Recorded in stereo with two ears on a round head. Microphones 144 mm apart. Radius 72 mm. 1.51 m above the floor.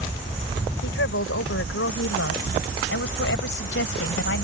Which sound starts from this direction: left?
A woman speaking, at 0.8 s.